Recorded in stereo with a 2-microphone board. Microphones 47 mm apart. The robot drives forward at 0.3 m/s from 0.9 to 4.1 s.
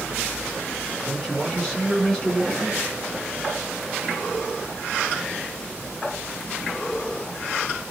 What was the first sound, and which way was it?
A man speaking, centre (ahead or behind).